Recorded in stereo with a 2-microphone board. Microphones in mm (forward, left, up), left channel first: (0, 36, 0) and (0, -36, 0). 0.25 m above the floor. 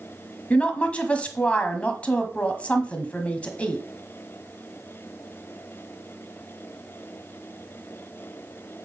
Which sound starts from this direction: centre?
A woman speaking, at 0.5 s.